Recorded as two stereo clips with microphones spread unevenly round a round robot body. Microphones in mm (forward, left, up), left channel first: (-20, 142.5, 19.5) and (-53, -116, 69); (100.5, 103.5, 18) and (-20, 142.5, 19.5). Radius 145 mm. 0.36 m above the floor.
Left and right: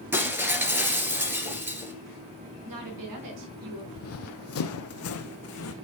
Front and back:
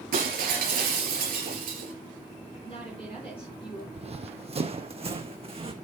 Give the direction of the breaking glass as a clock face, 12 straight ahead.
6 o'clock.